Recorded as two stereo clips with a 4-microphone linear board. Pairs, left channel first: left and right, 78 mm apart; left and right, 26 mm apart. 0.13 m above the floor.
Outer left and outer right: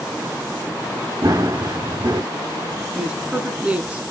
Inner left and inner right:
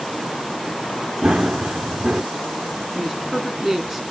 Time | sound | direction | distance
1.2 | running footsteps | 45° right (ahead or behind) | 0.8 m
3.0 | a woman speaking | 15° right (ahead or behind) | 1.1 m